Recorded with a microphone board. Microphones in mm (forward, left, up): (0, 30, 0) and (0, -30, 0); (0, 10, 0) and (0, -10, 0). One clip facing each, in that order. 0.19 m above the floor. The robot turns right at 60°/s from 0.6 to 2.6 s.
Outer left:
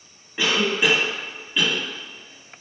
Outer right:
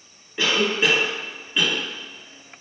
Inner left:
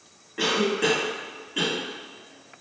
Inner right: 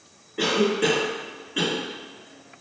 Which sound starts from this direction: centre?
A cough, at 0.4 s.